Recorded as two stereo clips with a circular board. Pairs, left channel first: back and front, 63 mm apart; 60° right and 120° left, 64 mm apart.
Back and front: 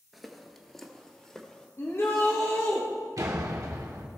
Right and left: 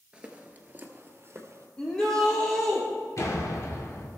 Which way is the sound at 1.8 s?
135° right.